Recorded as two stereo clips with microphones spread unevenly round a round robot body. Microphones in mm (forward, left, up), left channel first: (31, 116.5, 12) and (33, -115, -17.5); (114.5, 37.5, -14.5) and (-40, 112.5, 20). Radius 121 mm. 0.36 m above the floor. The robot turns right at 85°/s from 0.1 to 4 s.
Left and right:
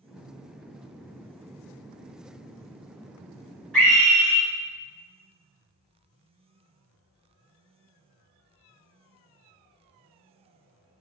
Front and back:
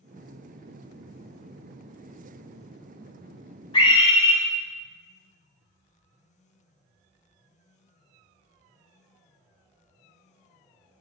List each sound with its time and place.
3.7 s a scream: 5° right, 1.3 m; by 4.4 s 15° left, 1.3 m